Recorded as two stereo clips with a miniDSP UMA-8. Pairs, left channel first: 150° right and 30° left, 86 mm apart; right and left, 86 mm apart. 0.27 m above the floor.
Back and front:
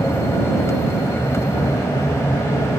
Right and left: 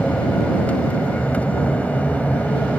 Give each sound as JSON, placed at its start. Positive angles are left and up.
{"t": 0.0, "sound": "an aircraft", "azimuth_deg": -150}